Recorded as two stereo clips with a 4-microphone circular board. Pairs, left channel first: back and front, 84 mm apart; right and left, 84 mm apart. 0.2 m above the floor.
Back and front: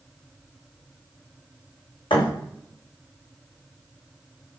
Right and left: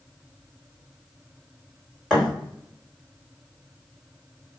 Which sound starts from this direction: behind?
A thud, at 2.1 s.